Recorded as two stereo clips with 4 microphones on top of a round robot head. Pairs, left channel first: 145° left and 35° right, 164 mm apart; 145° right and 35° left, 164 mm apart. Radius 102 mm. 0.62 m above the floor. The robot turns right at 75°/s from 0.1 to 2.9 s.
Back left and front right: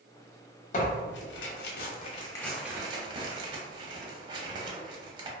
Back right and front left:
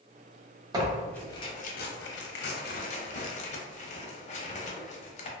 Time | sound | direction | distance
0.7 | tearing paper | 100° left | 0.6 m